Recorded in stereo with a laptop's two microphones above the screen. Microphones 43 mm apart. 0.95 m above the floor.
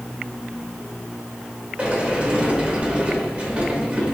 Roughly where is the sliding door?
Right.